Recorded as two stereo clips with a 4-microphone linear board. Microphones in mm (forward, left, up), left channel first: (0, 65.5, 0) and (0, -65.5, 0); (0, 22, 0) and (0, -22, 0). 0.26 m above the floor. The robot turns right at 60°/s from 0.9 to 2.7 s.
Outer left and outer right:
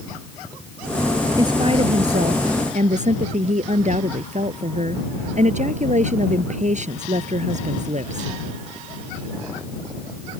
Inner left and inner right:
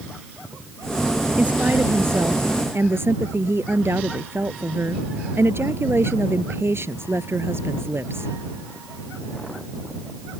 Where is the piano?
I don't hear a piano.